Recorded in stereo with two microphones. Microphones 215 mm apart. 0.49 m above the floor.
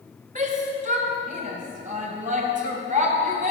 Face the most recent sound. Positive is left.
turn(degrees=-35)  # may be behind; listen again after turning